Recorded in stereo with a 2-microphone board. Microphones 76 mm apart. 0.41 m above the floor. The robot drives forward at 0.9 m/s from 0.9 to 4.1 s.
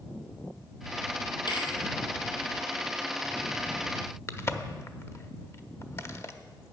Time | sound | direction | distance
1.5 | a thud | 75° left (ahead or behind) | 1.4 m
4.3 | a crack | 35° left (ahead or behind) | 0.5 m